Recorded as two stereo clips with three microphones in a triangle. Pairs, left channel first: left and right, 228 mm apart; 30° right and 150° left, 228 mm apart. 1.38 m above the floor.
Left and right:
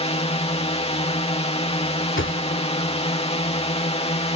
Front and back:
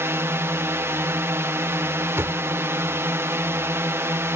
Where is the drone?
85° left.